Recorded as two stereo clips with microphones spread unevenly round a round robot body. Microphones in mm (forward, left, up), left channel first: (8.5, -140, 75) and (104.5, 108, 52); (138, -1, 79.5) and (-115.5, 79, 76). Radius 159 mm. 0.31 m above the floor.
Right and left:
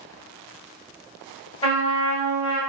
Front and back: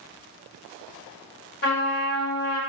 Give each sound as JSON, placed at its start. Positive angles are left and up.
{"t": 1.6, "sound": "a trumpet", "azimuth_deg": -45, "distance_m": 1.5}